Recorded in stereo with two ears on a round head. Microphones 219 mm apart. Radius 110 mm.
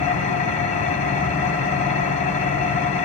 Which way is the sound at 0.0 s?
30° left (ahead or behind).